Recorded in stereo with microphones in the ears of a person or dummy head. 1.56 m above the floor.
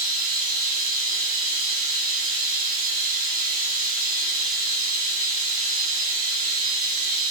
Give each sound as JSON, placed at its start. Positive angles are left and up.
{"t": 0.0, "sound": "running water", "side_deg": -40, "distance_m": 0.8}